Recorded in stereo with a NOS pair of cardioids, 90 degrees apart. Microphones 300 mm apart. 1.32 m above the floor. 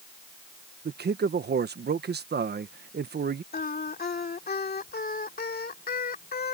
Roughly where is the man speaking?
Ahead right.